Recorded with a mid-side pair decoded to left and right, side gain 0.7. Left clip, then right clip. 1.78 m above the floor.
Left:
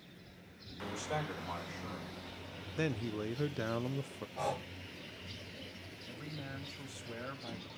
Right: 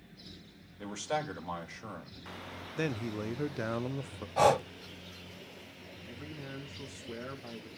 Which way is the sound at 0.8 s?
30° right.